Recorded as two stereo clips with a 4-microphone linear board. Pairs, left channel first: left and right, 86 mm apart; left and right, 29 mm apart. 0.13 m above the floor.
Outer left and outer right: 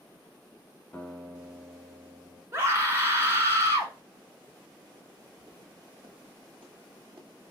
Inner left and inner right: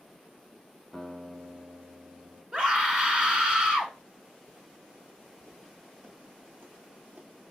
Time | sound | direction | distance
0.9 | a guitar | 15° left (ahead or behind) | 0.9 m
2.5 | a scream | 30° right (ahead or behind) | 1.3 m
5.4 | footsteps | 70° right (ahead or behind) | 1.6 m